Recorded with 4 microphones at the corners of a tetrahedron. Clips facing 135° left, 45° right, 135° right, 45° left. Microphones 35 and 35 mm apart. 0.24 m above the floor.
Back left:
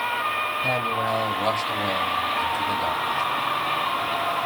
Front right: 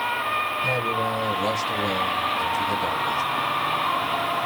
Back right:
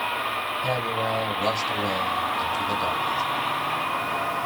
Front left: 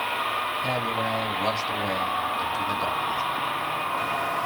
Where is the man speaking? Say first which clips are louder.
Even, back right 1 dB; 120° left, 1.6 m.